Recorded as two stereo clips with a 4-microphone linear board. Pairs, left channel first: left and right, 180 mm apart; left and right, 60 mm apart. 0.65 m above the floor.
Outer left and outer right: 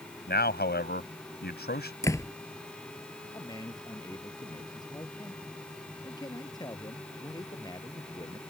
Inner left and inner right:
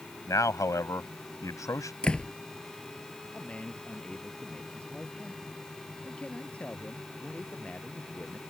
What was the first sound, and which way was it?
A man speaking, 70° left (ahead or behind).